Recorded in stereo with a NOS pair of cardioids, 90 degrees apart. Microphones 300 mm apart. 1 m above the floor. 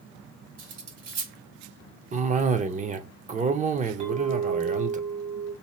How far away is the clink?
About 1.3 m.